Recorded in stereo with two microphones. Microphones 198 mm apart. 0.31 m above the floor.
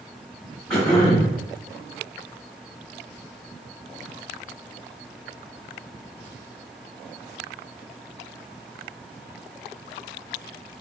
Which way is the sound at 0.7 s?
5° left (ahead or behind).